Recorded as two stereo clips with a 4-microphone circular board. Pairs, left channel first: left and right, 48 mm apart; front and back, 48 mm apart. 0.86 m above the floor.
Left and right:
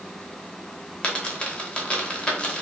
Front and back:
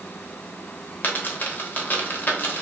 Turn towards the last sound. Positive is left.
turn(degrees=30)